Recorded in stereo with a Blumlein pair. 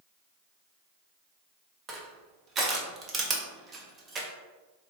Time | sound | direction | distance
1.9 | crushing | 20° right | 0.7 m